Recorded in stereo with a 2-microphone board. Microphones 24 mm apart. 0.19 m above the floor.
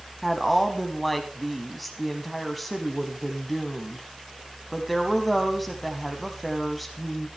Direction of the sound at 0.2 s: Centre (ahead or behind).